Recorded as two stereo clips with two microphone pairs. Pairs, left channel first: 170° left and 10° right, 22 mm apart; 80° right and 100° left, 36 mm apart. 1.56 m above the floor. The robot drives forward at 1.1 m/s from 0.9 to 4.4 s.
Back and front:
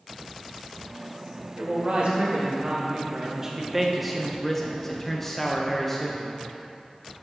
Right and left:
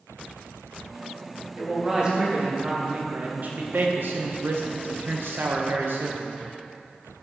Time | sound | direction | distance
1.6 | a man speaking | 30° left | 3.5 m